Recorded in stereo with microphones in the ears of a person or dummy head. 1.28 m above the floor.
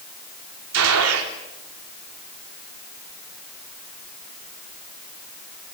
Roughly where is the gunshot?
Right.